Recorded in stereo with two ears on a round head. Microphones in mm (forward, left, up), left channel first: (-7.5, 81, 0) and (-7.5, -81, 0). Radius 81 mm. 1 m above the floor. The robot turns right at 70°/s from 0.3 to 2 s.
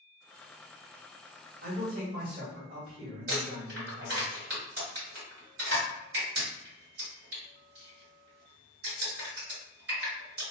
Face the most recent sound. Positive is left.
turn(degrees=-65)  # may be behind; listen again after turning